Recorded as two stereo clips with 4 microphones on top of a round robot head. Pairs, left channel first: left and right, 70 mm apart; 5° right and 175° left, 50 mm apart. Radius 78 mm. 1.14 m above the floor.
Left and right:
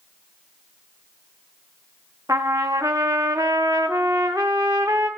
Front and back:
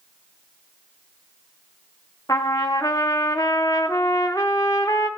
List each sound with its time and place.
2.3 s a trumpet: 35° right, 0.8 m